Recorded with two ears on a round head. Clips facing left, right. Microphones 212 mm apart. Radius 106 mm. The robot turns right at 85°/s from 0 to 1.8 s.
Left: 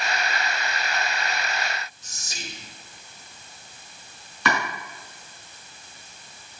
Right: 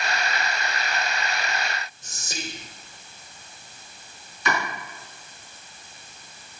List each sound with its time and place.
2.0 s whispering: 45° right (ahead or behind), 2 m
4.5 s chopping: 50° left (ahead or behind), 5.5 m